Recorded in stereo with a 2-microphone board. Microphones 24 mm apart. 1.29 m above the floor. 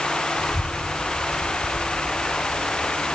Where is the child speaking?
40° right (ahead or behind); by 3.0 s 45° right (ahead or behind).